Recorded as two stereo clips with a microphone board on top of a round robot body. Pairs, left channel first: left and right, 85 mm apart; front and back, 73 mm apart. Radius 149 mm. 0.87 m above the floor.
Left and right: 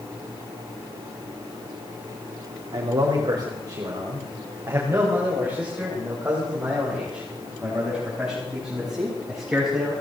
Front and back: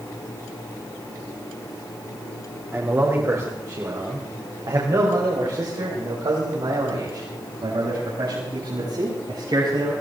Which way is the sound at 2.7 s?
120° right.